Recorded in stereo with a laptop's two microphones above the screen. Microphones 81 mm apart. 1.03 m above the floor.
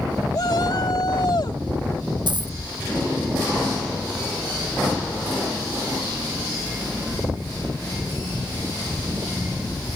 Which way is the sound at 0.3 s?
55° left (ahead or behind).